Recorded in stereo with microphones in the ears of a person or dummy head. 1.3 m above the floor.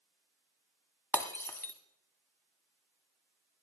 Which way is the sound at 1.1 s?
20° left (ahead or behind).